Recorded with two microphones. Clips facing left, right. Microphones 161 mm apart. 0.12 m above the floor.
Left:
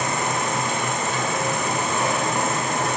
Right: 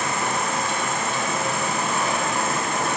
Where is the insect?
20° left (ahead or behind), 3.5 m.